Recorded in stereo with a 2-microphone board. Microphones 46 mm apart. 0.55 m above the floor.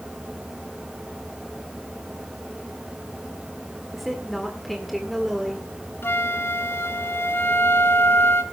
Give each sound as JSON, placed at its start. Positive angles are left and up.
{"t": 3.9, "sound": "a woman speaking", "side_deg": 0, "distance_m": 1.8}
{"t": 6.0, "sound": "a flute", "side_deg": 65, "distance_m": 1.8}